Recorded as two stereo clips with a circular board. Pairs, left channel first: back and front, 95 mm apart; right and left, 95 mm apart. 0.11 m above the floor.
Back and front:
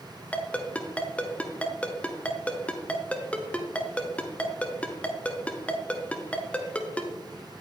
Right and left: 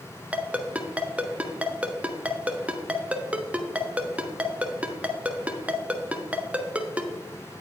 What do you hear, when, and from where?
0.3 s a ringtone: 135° left, 0.8 m